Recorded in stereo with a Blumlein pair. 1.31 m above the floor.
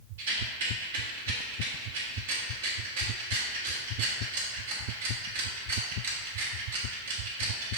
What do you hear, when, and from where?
0.2 s a rattle: 60° right, 1.7 m